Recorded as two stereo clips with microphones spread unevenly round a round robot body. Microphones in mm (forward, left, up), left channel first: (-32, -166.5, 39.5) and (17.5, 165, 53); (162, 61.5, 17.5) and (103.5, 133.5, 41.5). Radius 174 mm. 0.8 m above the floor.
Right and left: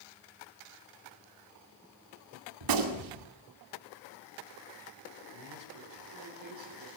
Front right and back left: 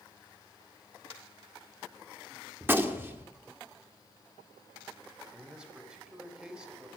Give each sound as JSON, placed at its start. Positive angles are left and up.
{"t": 2.6, "sound": "a gunshot", "azimuth_deg": 55, "distance_m": 2.5}
{"t": 5.3, "sound": "a man speaking", "azimuth_deg": 45, "distance_m": 4.5}